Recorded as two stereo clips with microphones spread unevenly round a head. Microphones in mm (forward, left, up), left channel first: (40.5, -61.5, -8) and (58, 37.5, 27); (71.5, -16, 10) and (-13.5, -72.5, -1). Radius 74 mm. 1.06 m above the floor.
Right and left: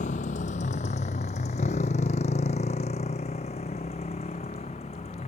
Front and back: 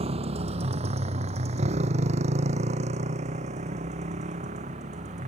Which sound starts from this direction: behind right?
A motorcycle, at 0.0 s.